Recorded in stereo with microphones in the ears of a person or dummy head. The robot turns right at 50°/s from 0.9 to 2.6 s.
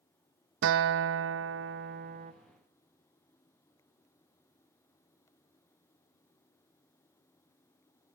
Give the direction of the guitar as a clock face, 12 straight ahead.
4 o'clock.